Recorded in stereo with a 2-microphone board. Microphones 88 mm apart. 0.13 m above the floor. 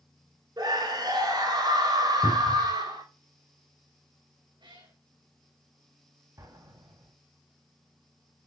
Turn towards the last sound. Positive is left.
turn(degrees=-40)  # may be behind; listen again after turning